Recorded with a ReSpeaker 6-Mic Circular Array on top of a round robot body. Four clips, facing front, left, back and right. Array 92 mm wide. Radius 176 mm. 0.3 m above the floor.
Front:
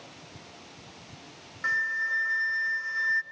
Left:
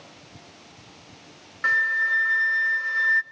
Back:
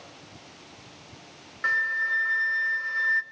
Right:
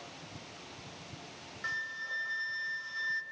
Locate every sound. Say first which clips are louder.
1.6 s a flute: left 16 dB, back 3 dB; 110° left, 1.1 m